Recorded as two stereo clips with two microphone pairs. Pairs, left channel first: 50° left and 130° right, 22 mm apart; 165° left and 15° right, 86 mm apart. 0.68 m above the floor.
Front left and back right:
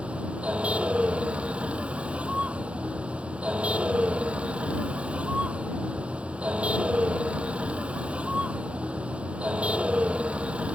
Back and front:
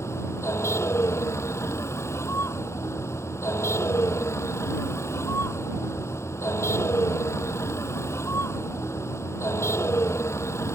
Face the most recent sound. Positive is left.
turn(degrees=-135)